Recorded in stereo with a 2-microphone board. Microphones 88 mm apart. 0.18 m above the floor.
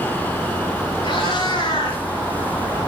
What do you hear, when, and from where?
1.0 s a cat meowing: 75° left (ahead or behind), 6.5 m